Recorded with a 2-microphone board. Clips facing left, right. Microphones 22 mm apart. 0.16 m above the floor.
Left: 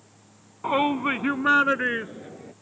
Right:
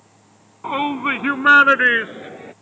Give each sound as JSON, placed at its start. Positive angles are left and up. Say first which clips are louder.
{"t": 0.6, "sound": "a shout", "louder": "right 2 dB", "side_deg": 0}